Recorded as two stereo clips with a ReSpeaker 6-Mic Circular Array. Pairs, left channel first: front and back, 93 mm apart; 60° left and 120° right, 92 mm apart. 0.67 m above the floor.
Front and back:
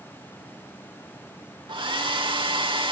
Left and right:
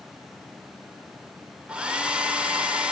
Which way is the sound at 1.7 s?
165° left.